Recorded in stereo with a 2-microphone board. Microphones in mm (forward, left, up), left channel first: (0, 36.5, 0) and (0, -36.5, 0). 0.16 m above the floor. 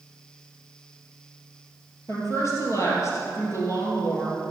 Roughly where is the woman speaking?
Left.